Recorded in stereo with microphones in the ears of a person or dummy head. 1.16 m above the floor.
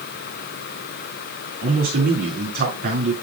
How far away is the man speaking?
About 3.5 m.